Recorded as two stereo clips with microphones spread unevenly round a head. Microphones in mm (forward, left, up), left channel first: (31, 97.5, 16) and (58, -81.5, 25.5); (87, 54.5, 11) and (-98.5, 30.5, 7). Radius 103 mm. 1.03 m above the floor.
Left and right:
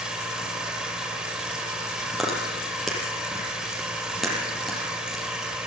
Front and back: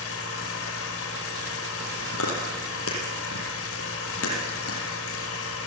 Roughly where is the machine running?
Ahead.